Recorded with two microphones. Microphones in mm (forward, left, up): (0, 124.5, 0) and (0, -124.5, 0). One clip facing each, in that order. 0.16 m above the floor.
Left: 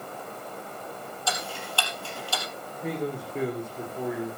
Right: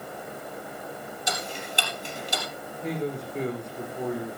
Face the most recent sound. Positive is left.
turn(degrees=5)  # may be behind; listen again after turning